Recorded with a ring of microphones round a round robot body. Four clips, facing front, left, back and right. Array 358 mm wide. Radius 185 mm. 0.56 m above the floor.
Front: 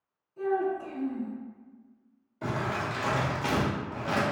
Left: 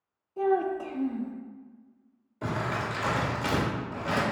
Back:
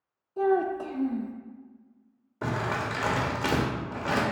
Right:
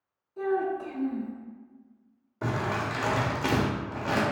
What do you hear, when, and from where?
0.4 s a child speaking: 160° left, 0.5 m
2.4 s crumpling: 155° right, 1.0 m